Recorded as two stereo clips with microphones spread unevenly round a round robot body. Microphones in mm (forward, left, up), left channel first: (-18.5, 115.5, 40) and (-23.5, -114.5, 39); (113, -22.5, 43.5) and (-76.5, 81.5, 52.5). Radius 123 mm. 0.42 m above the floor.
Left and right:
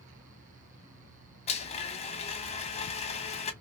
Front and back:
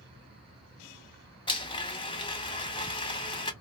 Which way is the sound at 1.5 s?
30° left.